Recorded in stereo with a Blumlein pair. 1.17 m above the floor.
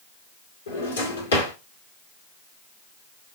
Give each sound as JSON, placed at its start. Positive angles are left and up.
{"t": 0.7, "sound": "a drawer", "azimuth_deg": 65, "distance_m": 1.7}